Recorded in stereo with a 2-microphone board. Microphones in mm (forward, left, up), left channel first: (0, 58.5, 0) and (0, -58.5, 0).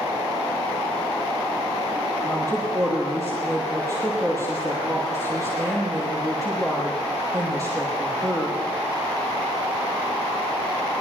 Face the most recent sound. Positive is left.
turn(degrees=-30)  # may be behind; listen again after turning